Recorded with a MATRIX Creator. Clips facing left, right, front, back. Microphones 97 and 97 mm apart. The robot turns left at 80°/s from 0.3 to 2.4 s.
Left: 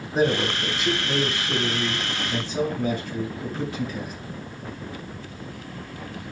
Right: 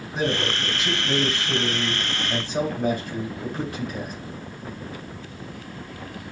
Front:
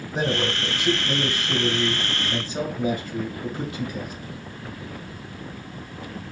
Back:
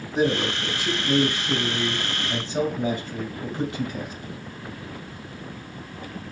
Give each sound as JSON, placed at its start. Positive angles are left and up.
{"t": 0.1, "sound": "a man speaking", "azimuth_deg": 45, "distance_m": 2.5}